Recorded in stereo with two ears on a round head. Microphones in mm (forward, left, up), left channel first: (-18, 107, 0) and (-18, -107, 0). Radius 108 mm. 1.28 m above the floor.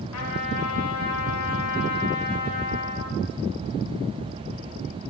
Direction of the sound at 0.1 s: 80° left.